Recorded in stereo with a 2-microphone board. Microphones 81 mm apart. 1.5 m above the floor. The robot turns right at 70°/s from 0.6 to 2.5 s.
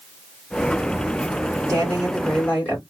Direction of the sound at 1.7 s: 40° right.